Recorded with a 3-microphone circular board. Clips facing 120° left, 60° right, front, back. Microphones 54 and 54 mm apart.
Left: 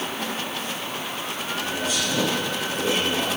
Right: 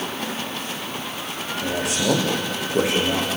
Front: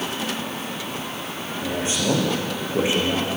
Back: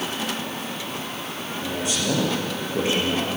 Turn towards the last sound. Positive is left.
turn(degrees=-75)